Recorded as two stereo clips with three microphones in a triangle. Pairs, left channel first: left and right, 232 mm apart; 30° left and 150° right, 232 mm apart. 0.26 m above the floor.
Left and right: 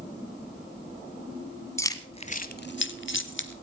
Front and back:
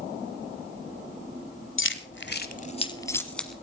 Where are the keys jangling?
15° left, 1.3 m; by 3.5 s 120° left, 1.5 m.